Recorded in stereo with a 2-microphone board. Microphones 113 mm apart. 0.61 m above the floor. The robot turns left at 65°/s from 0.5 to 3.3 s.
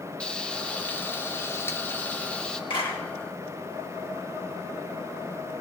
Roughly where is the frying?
Centre.